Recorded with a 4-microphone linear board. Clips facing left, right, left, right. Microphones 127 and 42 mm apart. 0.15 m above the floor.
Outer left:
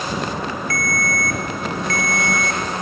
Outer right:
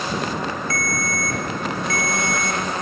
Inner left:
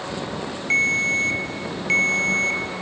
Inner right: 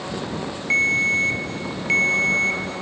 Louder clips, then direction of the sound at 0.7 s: Outer left 2 dB, inner right 1 dB; 5° right (ahead or behind).